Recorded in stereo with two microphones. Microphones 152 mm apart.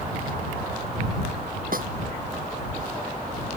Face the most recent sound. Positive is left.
turn(degrees=-65)  # may be behind; listen again after turning